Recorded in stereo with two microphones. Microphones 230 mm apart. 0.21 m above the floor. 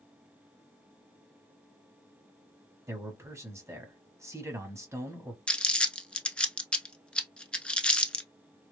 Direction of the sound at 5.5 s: 5° left (ahead or behind).